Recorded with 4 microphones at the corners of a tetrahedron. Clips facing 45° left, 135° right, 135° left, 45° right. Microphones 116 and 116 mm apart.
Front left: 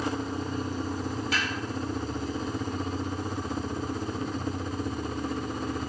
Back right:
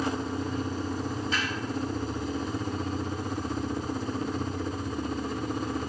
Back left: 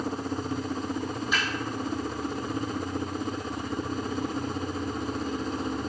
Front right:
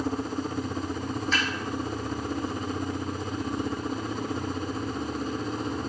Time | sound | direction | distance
1.3 | a snare drum | 55° left | 2.5 m